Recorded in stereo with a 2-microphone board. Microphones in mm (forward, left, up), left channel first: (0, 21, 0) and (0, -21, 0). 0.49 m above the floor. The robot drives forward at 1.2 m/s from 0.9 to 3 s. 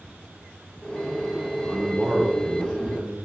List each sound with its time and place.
1.6 s a man speaking: 5° left (ahead or behind), 1.1 m; by 3.2 s centre (ahead or behind), 2.5 m